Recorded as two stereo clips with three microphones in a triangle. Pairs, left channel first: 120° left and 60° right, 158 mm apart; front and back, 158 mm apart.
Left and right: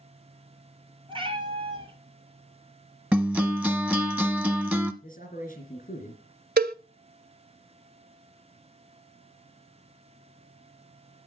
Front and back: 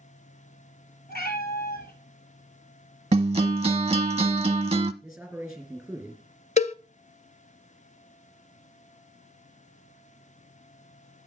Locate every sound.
1.1 s a cat meowing: 5° right, 2 m
3.1 s a guitar: 135° right, 0.8 m
5.0 s a man speaking: 95° left, 3 m
6.6 s a cowbell: 45° right, 0.6 m